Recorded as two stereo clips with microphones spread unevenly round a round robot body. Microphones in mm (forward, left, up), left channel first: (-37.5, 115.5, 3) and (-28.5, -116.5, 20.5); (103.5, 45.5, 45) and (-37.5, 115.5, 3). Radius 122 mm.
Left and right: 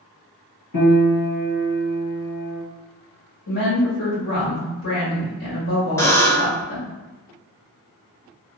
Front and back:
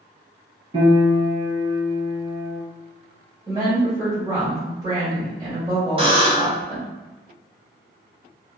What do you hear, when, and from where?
0.7 s a piano: 95° left, 1.5 m
3.5 s a woman speaking: 105° left, 1.7 m
6.0 s a buzzer: 165° left, 0.9 m